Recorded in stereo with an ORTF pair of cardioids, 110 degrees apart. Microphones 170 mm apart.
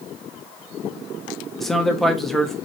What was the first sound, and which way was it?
A man speaking, straight ahead.